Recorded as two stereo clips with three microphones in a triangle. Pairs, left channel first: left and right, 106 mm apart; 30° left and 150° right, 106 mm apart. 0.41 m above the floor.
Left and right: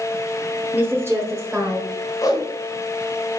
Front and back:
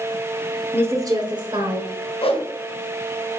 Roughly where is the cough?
No cough in this recording.